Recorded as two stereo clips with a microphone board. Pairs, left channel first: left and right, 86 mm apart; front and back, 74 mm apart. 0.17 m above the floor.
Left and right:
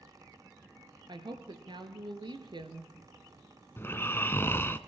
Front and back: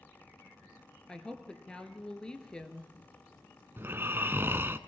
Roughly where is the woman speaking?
Right.